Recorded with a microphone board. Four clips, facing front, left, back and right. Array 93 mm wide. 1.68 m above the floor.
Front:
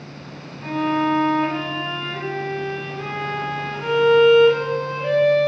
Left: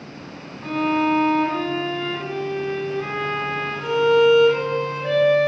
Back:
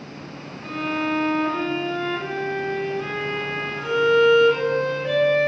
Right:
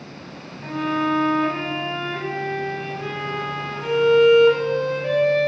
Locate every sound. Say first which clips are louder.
0.6 s a violin: left 2 dB, front 5 dB; 25° right, 3 m